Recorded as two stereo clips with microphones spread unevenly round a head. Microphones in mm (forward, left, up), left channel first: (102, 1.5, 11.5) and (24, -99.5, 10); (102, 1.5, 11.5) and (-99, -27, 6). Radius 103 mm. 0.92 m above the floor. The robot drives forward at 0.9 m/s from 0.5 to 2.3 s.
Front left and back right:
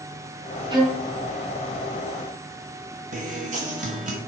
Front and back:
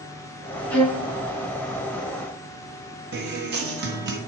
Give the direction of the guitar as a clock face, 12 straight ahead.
5 o'clock.